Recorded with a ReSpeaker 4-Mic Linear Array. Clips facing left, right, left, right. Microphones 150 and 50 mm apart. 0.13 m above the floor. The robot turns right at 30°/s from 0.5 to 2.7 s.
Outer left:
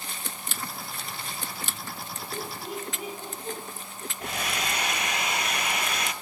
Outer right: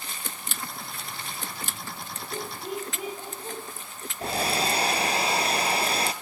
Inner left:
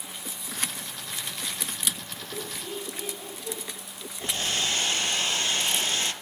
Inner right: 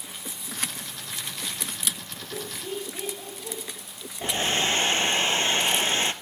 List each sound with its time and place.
2.3 s laughter: 25° right (ahead or behind), 6.5 m; by 3.6 s 15° right (ahead or behind), 6.5 m
4.2 s a hair dryer: 35° right (ahead or behind), 0.6 m